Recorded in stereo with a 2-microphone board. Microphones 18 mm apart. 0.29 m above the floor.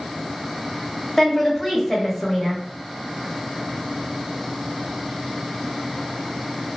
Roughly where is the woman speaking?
Centre.